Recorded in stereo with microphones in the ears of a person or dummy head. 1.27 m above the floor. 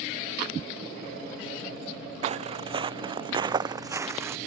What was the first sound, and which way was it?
Footsteps, 35° right (ahead or behind).